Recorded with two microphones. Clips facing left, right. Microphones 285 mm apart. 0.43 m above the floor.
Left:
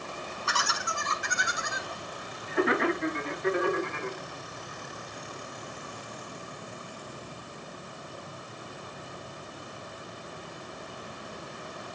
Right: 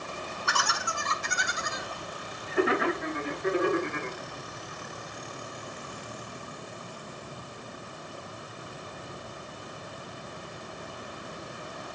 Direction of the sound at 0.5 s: 25° left (ahead or behind).